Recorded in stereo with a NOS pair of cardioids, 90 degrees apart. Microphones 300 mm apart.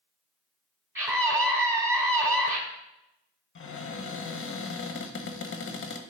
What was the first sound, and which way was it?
A scream, 10° right.